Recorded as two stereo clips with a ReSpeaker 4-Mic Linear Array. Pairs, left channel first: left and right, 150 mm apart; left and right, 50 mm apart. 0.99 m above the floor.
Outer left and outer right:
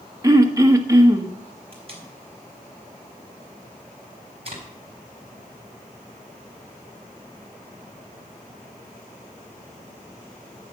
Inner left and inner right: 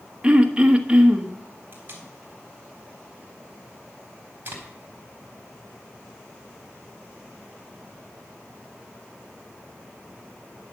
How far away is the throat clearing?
About 1.1 m.